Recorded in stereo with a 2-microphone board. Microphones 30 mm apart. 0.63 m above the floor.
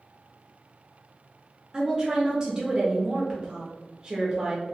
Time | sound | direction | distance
1.7 | a woman speaking | 25° right (ahead or behind) | 0.7 m